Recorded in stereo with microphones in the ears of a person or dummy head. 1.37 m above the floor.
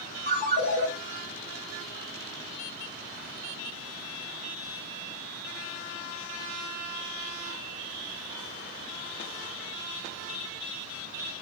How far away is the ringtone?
About 1.7 m.